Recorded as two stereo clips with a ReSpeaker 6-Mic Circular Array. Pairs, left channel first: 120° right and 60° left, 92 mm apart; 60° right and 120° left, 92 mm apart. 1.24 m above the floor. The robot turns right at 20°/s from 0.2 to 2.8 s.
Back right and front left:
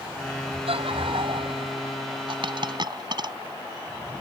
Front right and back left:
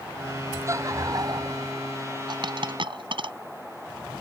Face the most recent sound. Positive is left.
turn(degrees=95)